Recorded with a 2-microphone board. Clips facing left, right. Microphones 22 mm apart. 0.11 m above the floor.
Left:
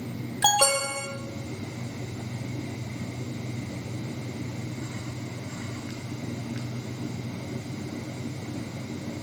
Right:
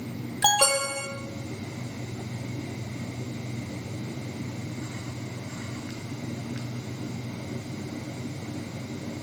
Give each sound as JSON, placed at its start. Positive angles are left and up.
{"t": 0.4, "sound": "an alarm", "side_deg": 5, "distance_m": 3.0}